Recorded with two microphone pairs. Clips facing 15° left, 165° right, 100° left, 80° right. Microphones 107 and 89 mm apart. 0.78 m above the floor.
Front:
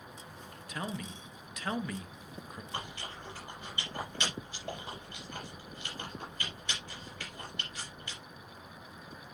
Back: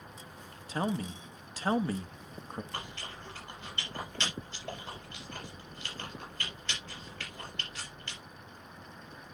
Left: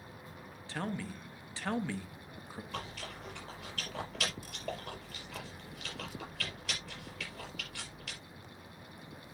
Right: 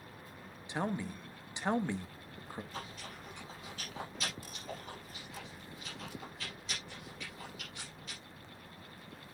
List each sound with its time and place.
0.7 s a man speaking: 140° right, 0.8 m
2.7 s chewing: 95° left, 4.5 m